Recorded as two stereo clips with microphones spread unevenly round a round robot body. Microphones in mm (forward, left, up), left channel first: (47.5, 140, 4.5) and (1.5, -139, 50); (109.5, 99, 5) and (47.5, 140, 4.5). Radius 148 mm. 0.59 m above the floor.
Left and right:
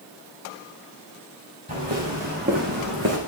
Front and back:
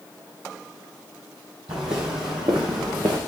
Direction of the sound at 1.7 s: 160° right.